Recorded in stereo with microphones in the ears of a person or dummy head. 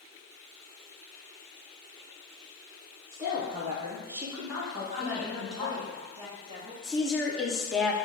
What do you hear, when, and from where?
3.1 s a woman speaking: 15° right (ahead or behind), 0.8 m; by 5.9 s 5° right (ahead or behind), 2.5 m
4.9 s a woman speaking: 35° right (ahead or behind), 1.6 m
6.8 s a woman speaking: 5° left (ahead or behind), 0.5 m